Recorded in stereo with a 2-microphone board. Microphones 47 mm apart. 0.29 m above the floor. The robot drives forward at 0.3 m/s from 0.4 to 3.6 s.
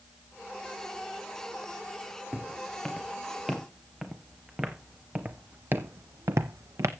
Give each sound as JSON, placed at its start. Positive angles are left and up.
{"t": 2.3, "sound": "footsteps", "side_deg": 5, "distance_m": 2.5}